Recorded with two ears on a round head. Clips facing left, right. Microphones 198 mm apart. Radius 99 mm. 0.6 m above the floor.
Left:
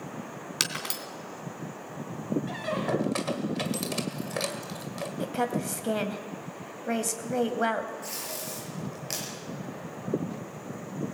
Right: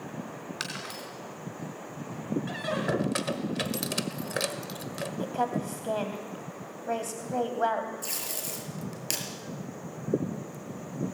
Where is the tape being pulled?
50° right (ahead or behind), 6 m.